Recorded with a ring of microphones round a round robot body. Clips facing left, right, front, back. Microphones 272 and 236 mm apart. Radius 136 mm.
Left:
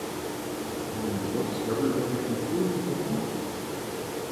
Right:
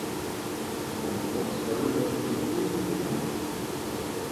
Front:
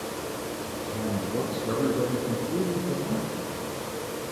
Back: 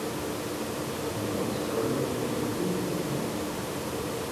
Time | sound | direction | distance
0.9 | a man speaking | 20° left | 4 m